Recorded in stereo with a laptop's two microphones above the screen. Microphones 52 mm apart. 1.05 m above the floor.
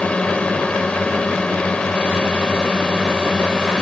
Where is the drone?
20° left (ahead or behind); by 3.8 s 15° left (ahead or behind).